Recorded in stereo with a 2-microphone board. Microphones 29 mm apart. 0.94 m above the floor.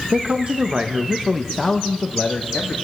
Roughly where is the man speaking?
Right.